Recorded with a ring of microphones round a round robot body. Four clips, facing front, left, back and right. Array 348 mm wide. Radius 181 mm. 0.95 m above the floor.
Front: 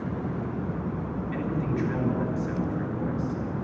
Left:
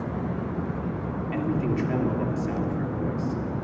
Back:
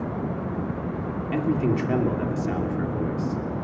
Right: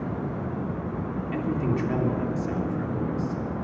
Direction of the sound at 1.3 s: Straight behind.